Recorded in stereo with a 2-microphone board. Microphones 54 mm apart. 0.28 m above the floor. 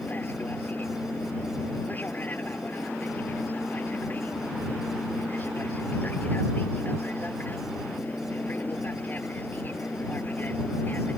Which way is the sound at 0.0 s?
35° left (ahead or behind).